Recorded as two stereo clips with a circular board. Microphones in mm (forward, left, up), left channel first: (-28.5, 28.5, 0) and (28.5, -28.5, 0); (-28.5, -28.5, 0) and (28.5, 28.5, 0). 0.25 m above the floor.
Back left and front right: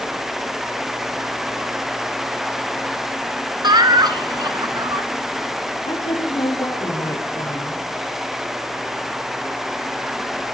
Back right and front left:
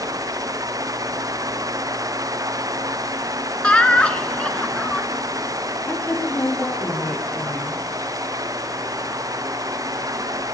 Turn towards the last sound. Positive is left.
turn(degrees=155)